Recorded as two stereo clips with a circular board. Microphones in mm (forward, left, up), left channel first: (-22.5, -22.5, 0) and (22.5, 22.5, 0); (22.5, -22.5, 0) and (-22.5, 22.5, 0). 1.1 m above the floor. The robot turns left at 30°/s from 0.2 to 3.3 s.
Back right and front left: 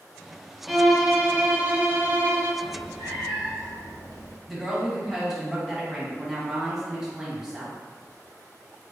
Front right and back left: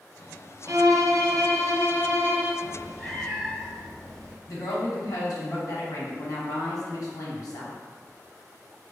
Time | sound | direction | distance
0.7 | a violin | 135° left | 0.5 m
2.6 | a cat meowing | 110° right | 0.7 m
4.5 | a woman speaking | 35° right | 1.1 m